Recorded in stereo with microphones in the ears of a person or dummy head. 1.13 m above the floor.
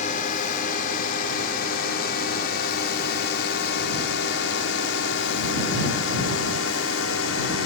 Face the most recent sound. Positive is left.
turn(degrees=70)  # may be behind; listen again after turning